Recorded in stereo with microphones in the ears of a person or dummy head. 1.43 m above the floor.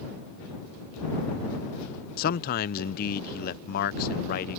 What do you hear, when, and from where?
2.2 s a man speaking: 50° left (ahead or behind)